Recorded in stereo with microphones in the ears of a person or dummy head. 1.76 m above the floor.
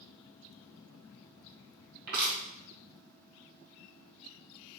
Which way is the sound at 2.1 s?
40° right (ahead or behind).